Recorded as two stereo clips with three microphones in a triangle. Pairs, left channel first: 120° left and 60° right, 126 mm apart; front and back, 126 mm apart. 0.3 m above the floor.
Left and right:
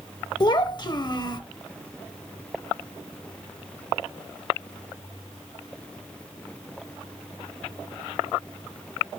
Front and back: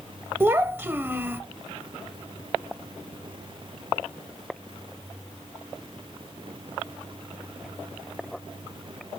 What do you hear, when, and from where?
0.4 s a child speaking: 120° left, 0.6 m